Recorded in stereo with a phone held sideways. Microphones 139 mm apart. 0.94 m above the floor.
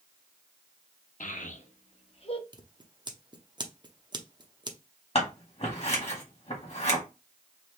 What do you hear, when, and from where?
1.2 s a child speaking: 70° left (ahead or behind), 0.9 m; by 2.4 s 40° left (ahead or behind), 1.0 m
2.5 s scissors: 30° right (ahead or behind), 0.6 m
5.2 s scissors: 50° left (ahead or behind), 1.5 m